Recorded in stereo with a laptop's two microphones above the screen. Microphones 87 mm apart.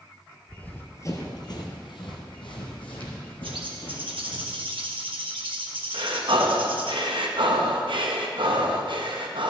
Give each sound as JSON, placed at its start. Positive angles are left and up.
{"t": 0.5, "sound": "running footsteps", "side_deg": 10, "distance_m": 1.1}
{"t": 3.4, "sound": "a bird", "side_deg": -70, "distance_m": 1.2}
{"t": 5.9, "sound": "breathing", "side_deg": -65, "distance_m": 0.8}